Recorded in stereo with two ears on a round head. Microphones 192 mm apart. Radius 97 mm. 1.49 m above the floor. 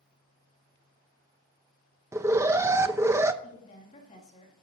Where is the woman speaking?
30° left (ahead or behind), 3 m.